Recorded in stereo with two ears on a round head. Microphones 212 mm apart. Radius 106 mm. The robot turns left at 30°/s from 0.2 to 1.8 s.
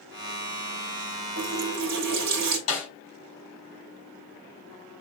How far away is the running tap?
About 1.7 m.